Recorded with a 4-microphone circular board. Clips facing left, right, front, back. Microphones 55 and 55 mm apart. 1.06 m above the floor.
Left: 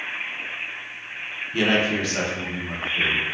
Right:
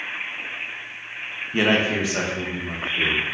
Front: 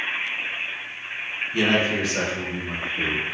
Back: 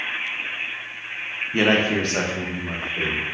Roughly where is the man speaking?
Behind right.